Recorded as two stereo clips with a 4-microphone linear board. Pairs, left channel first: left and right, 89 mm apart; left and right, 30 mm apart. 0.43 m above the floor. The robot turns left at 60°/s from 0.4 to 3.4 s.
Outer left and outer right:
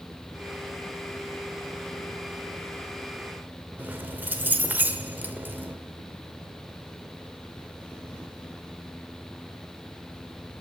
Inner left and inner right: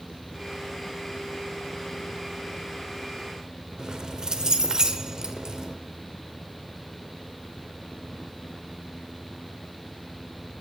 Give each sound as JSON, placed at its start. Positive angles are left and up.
{"t": 3.8, "sound": "keys jangling", "side_deg": -20, "distance_m": 1.0}